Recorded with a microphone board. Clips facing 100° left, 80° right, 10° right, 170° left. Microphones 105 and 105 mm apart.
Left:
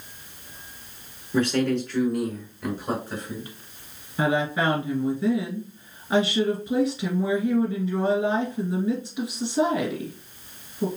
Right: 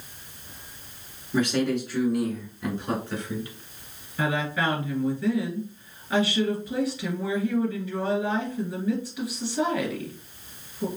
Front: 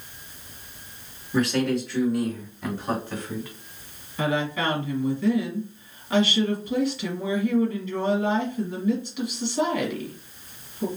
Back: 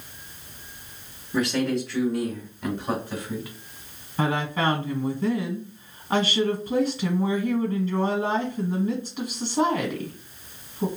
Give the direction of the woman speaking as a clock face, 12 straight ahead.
7 o'clock.